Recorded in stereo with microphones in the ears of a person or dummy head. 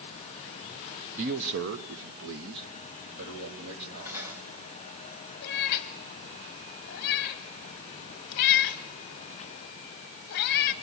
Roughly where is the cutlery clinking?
Centre.